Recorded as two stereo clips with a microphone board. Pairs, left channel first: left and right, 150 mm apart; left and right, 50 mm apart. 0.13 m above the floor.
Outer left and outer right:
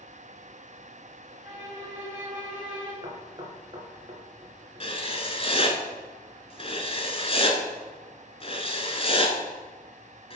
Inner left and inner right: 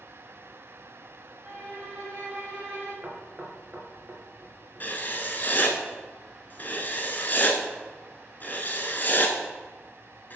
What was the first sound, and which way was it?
A violin, 10° right (ahead or behind).